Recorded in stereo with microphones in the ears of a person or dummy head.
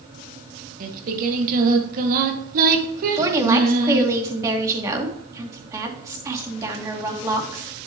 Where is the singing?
55° right (ahead or behind), 1.8 m.